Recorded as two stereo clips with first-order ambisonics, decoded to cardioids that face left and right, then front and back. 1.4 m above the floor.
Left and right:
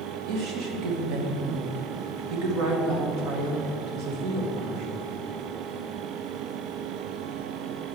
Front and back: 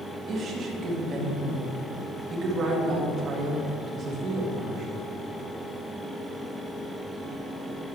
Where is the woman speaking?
120° right, 1.6 m.